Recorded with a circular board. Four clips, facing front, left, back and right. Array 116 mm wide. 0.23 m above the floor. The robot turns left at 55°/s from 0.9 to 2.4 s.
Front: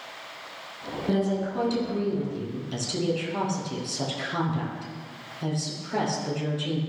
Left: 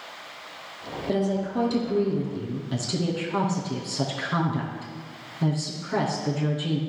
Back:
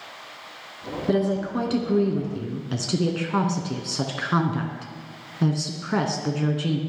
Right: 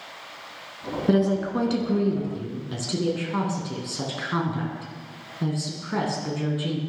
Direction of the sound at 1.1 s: 105° right.